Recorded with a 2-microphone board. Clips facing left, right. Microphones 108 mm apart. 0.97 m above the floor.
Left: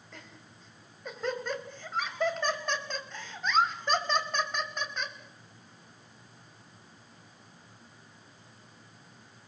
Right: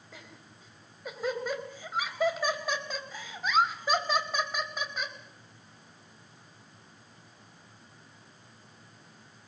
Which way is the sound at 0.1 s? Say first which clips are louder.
Even; 5° right (ahead or behind).